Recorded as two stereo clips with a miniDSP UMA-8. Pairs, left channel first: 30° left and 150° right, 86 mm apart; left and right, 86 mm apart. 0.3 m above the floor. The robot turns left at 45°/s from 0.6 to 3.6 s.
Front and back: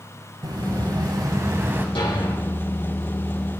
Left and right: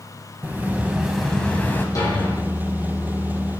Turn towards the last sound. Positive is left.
turn(degrees=-30)